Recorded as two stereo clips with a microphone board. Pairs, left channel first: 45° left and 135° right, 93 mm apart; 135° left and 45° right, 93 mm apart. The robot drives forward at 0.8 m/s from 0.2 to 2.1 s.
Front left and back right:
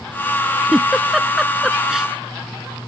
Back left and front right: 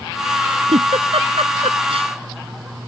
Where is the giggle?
45° right; by 2.1 s 50° right.